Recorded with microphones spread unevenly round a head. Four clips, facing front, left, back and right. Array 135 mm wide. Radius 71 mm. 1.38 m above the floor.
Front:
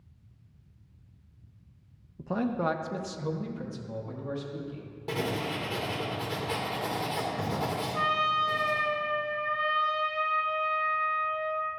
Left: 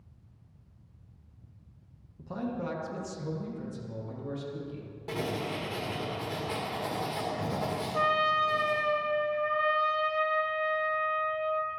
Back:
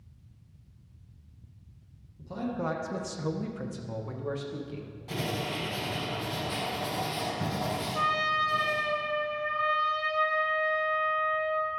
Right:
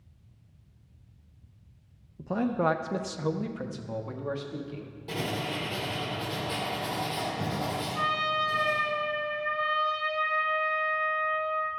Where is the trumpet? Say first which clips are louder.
Left 4 dB, front 1 dB; 85° left, 0.6 m.